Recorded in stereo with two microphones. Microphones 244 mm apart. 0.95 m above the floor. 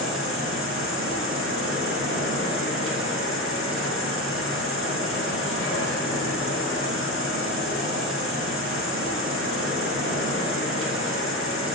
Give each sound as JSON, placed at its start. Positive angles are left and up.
{"t": 0.0, "sound": "an insect", "side_deg": -60, "distance_m": 2.5}